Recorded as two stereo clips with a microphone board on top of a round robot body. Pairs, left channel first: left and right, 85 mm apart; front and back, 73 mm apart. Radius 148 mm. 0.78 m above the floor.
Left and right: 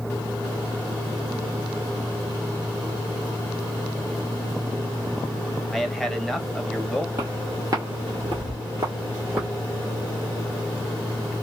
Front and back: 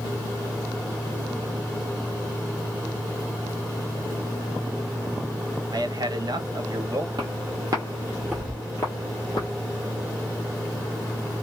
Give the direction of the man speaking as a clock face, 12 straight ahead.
6 o'clock.